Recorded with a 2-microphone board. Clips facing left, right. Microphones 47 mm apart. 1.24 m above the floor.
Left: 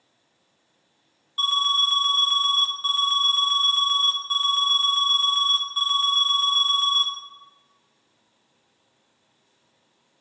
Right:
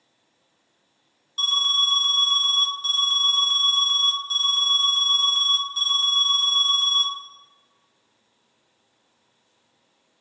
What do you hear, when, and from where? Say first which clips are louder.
1.4 s an alarm: even; 15° left (ahead or behind), 0.5 m